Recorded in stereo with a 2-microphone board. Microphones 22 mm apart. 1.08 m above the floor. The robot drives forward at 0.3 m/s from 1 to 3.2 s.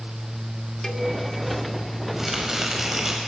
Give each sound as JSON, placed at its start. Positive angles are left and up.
{"t": 0.8, "sound": "a cowbell", "side_deg": 20, "distance_m": 2.0}
{"t": 2.2, "sound": "chopping", "side_deg": -15, "distance_m": 6.0}